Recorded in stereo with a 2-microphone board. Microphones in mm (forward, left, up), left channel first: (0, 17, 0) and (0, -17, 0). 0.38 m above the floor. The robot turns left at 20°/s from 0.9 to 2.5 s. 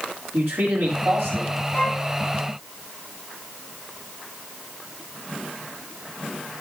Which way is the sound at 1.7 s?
35° left (ahead or behind).